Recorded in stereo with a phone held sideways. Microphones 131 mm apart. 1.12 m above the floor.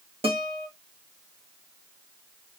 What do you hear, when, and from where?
0.2 s a guitar: 50° right (ahead or behind), 1.4 m